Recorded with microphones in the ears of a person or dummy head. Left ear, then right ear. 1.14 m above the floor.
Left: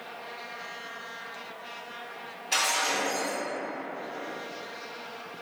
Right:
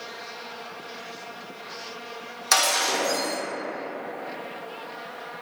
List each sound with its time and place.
2.5 s breaking glass: 50° right (ahead or behind), 0.7 m